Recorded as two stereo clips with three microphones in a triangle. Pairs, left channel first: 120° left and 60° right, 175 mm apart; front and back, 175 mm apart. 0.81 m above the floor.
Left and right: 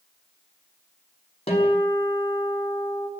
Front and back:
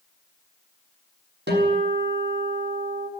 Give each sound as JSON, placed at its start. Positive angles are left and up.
{"t": 1.5, "sound": "a guitar", "azimuth_deg": 175, "distance_m": 7.0}